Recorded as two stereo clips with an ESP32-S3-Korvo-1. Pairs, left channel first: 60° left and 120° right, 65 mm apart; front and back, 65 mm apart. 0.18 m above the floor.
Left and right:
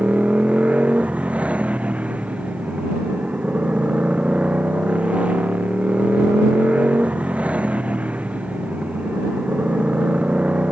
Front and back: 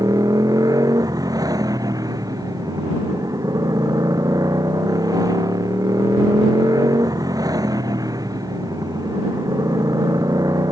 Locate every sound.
0.0 s a motorcycle: 170° left